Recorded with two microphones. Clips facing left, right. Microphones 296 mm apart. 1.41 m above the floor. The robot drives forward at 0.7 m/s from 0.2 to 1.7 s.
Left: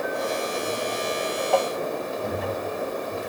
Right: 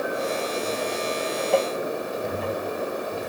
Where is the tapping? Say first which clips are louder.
Right 1 dB; 20° right (ahead or behind).